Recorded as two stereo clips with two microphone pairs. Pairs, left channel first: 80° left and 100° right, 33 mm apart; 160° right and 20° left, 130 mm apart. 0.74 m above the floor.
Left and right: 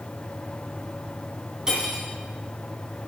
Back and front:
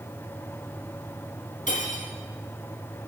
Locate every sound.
1.7 s cutlery clinking: 170° right, 3 m